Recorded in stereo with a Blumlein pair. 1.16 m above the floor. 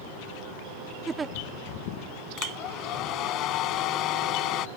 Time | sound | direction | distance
1.1 | a giggle | 15° right | ?
2.4 | a hair dryer | 35° left | ?